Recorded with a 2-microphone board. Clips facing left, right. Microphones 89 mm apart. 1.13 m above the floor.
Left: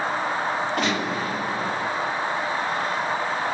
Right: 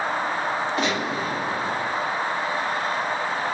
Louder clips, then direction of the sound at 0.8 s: Even; 60° left (ahead or behind).